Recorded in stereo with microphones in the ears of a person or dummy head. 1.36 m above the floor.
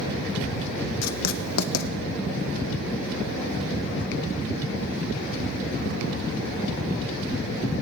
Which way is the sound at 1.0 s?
80° left.